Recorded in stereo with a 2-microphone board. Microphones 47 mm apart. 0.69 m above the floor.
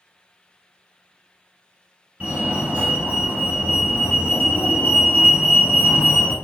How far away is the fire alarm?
About 1.9 m.